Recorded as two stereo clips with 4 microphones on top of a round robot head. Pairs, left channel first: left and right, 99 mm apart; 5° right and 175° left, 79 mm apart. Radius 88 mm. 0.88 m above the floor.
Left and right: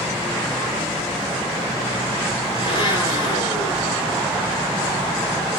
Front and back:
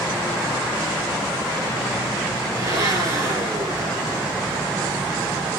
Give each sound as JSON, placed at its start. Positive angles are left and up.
{"t": 2.5, "sound": "a blender", "azimuth_deg": 130, "distance_m": 5.5}